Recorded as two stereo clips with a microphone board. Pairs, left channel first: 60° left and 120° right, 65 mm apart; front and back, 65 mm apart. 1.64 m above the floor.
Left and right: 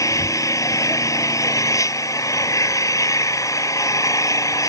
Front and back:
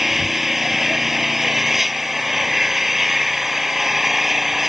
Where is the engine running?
95° left.